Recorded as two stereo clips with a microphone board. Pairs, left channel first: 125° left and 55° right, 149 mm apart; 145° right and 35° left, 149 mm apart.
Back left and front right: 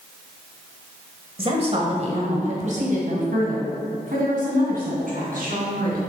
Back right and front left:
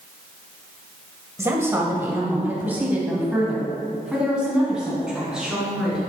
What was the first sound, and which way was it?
A woman speaking, 30° right.